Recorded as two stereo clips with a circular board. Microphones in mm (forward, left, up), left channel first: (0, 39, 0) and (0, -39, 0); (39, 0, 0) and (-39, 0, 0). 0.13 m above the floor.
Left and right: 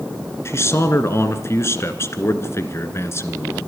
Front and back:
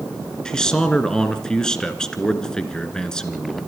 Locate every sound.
0.5 s a man speaking: 75° left, 1.7 m